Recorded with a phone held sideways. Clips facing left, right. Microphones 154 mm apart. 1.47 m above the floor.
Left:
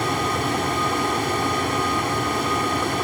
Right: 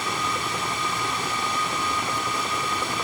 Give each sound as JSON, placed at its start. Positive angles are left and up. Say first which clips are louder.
{"t": 0.0, "sound": "a fan", "louder": "left 6 dB", "side_deg": 55}